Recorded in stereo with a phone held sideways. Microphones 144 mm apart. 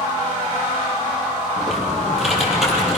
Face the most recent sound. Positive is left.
turn(degrees=-5)  # may be behind; listen again after turning